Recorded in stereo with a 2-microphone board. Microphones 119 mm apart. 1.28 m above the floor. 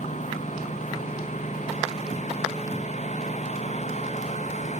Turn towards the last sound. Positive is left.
turn(degrees=80)